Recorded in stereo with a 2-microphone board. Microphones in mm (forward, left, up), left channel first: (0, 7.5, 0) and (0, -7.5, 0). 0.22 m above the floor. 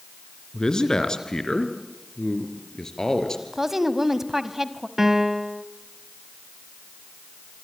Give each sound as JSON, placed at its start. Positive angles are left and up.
{"t": 0.5, "sound": "a man speaking", "side_deg": 60, "distance_m": 2.5}
{"t": 3.5, "sound": "a woman speaking", "side_deg": -20, "distance_m": 1.2}
{"t": 5.0, "sound": "a piano", "side_deg": -25, "distance_m": 1.1}